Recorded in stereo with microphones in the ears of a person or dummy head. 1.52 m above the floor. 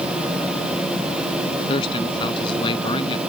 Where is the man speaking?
35° left (ahead or behind).